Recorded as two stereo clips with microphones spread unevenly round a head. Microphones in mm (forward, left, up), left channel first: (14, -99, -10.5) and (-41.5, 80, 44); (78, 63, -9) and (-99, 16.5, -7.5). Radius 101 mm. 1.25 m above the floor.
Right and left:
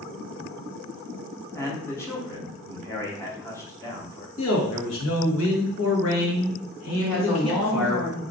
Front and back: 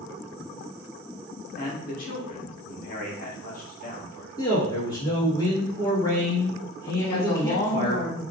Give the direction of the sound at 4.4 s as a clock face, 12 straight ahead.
2 o'clock.